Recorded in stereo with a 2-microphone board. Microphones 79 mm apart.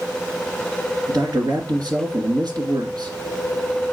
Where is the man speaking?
60° right (ahead or behind), 2.5 m.